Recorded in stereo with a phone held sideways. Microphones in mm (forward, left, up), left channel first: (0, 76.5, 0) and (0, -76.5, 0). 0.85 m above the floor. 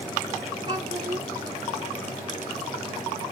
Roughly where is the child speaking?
Right.